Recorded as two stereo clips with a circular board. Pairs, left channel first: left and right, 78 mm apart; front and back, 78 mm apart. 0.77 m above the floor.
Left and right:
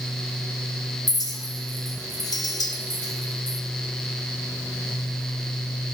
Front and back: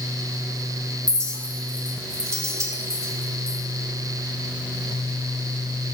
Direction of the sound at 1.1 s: 130° left.